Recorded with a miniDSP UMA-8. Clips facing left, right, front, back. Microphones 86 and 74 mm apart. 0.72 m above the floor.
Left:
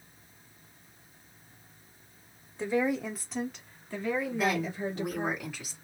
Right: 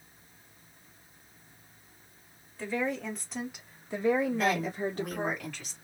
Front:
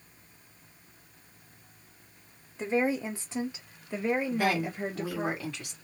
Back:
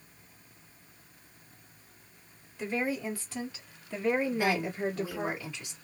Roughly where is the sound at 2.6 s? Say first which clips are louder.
Left 4 dB, front 4 dB; ahead left.